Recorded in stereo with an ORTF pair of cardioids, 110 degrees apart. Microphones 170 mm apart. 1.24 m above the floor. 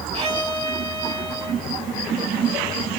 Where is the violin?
40° right, 2 m.